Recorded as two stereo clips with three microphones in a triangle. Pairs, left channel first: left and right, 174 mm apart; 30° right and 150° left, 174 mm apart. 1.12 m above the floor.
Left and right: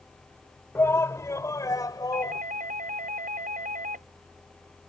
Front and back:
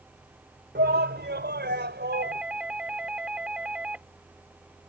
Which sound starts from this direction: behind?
A shout, at 0.8 s.